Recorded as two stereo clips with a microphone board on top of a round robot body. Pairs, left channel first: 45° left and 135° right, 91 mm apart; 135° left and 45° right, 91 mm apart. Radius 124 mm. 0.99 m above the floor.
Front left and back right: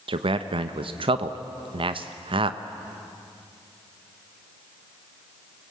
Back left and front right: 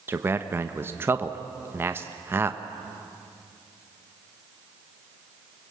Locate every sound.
0.1 s a man speaking: 110° right, 0.9 m